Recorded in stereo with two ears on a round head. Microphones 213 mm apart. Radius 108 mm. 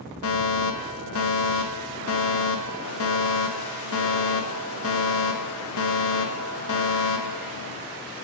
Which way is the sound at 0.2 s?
65° left (ahead or behind).